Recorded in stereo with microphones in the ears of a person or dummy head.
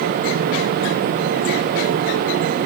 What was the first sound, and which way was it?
Only background noise.